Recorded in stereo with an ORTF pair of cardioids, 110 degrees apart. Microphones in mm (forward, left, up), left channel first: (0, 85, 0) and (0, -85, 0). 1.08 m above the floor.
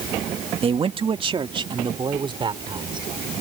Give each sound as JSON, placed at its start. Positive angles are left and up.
{"t": 0.6, "sound": "a man speaking", "azimuth_deg": -35}